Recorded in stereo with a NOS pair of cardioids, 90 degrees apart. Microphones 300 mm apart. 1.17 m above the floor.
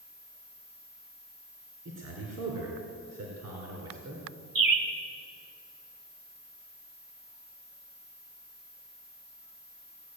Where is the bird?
50° right, 2.5 m.